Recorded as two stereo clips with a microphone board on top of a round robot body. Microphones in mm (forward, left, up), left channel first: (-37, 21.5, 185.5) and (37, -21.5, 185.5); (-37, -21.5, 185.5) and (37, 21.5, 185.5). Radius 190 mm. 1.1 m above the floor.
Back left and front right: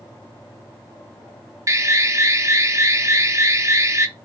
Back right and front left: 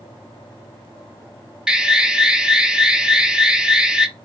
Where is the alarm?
45° right, 0.8 m.